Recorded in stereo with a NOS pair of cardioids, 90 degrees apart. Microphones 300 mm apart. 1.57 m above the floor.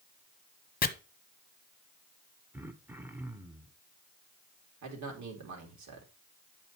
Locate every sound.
0.8 s chopping: 30° left, 1.0 m
2.5 s throat clearing: 5° right, 1.2 m
4.8 s a man speaking: 65° right, 4 m